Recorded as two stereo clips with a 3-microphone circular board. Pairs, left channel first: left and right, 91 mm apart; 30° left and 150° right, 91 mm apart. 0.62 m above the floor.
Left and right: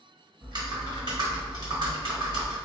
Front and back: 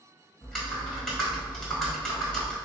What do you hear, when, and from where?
0.4 s typing on a keyboard: 55° right, 1.3 m